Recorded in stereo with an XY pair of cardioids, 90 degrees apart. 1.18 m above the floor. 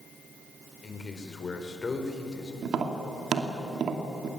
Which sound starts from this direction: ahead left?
A man speaking, at 0.8 s.